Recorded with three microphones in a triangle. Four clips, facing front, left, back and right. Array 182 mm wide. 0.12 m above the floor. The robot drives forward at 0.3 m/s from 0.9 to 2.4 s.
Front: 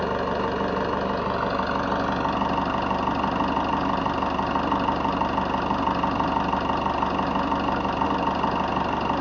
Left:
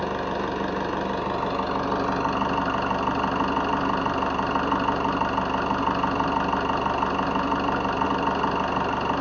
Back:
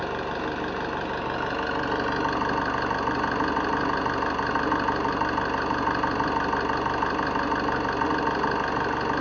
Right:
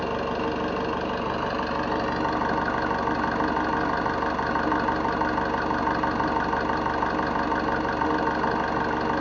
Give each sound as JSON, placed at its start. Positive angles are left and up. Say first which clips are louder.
{"t": 0.0, "sound": "an engine running", "louder": "even, front 4 dB", "azimuth_deg": 15, "distance_m": 1.0}